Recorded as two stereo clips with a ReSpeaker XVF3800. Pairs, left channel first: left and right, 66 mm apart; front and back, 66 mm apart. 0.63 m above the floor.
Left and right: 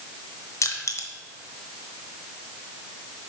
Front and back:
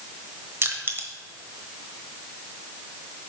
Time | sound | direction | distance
0.6 | crushing | 130° left | 1.1 m